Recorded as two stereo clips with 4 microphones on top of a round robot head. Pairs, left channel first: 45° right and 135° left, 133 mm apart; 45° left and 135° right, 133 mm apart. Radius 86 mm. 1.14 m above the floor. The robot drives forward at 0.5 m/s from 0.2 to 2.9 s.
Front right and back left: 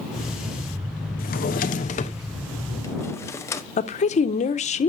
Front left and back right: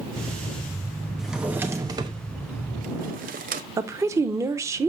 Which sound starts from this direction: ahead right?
A drawer, at 1.2 s.